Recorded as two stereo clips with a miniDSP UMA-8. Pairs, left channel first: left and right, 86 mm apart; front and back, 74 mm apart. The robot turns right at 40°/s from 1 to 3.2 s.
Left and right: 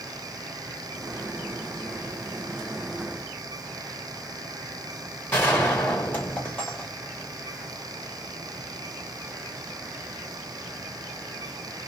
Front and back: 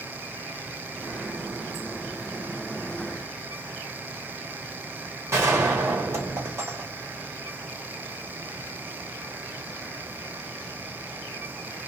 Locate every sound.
5.3 s a gunshot: 150° left, 1.7 m